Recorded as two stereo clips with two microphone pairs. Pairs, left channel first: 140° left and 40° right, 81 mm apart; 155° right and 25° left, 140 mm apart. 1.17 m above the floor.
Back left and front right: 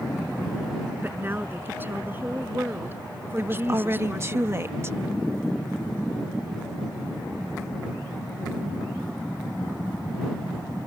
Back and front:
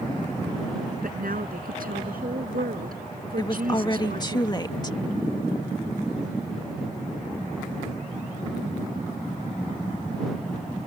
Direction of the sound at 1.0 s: 25° left.